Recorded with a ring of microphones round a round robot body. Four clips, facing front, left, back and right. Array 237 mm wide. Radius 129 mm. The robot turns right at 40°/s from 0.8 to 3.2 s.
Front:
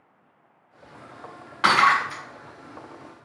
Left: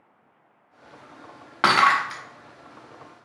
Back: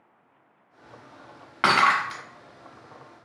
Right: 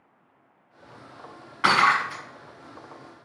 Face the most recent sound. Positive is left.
turn(degrees=170)